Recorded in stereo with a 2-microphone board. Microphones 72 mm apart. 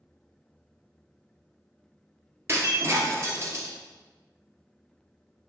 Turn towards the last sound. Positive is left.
turn(degrees=-40)  # may be behind; listen again after turning